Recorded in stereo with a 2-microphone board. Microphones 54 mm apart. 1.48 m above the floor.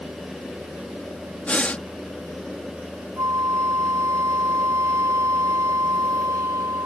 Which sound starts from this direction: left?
Breathing, at 1.4 s.